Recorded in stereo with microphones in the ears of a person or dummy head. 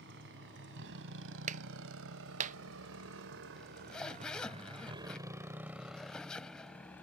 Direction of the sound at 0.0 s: 70° right (ahead or behind).